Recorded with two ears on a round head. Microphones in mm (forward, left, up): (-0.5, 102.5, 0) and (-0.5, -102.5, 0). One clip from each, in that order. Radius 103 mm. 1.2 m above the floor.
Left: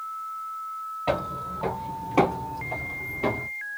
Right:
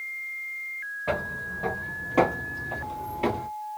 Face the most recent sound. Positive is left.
turn(degrees=-25)  # may be behind; listen again after turning